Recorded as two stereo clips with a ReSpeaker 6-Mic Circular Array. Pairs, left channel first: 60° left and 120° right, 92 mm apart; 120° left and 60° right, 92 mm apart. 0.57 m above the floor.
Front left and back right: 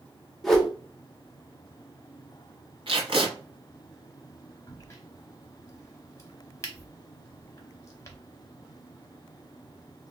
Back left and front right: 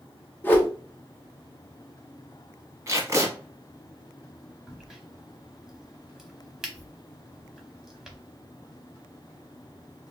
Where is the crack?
25° left, 0.8 m.